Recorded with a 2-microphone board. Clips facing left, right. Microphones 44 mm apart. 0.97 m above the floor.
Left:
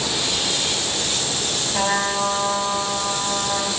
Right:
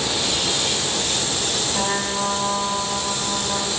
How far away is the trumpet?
About 5 m.